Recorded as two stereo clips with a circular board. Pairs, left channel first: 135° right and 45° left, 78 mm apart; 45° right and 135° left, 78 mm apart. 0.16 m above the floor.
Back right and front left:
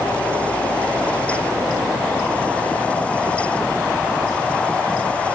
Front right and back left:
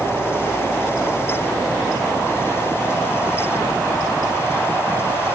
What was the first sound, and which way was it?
Only background noise.